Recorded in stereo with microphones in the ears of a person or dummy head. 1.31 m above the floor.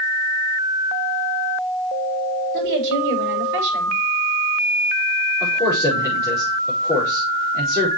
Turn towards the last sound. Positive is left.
turn(degrees=-10)  # may be behind; listen again after turning